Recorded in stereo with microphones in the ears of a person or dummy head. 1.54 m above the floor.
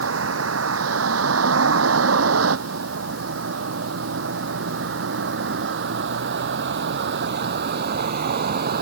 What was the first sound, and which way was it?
A vehicle, 90° right.